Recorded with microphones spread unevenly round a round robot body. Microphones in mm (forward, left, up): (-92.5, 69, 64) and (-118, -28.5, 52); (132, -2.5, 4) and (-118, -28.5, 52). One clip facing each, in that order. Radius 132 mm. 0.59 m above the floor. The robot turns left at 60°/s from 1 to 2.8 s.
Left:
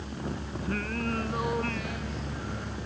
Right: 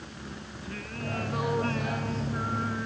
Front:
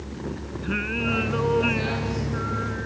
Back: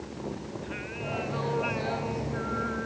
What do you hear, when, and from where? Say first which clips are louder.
0.6 s singing: left 6 dB, front 9 dB; 15° left; by 2.9 s 95° right